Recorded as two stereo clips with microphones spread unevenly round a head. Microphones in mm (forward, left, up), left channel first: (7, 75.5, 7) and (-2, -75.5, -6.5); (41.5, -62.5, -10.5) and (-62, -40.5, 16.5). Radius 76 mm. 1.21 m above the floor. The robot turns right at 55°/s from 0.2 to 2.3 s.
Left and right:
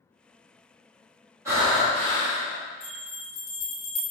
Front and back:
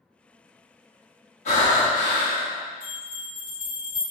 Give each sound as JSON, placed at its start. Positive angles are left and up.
{"t": 1.4, "sound": "breathing", "azimuth_deg": -20, "distance_m": 2.0}
{"t": 2.8, "sound": "a bell", "azimuth_deg": 65, "distance_m": 1.5}